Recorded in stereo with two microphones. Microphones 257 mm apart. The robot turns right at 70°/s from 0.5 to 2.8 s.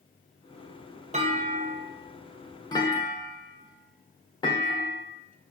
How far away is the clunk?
About 0.5 m.